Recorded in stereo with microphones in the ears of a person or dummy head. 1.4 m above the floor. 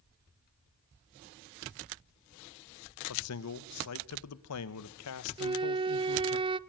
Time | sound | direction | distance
3.1 | a man speaking | 85° left | 1.3 m
5.4 | a flute | 25° right (ahead or behind) | 0.6 m